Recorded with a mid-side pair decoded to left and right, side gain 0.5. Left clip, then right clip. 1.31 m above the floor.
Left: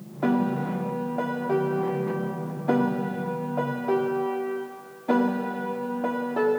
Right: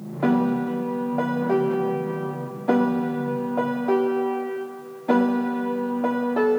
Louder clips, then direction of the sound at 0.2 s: Right 3 dB; 20° right.